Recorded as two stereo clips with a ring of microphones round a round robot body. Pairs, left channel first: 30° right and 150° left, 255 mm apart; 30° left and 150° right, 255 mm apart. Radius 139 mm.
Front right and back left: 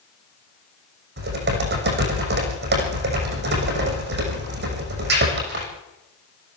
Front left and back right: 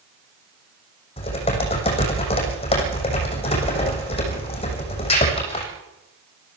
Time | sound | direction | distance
1.2 | typing on a keyboard | 100° left | 6.5 m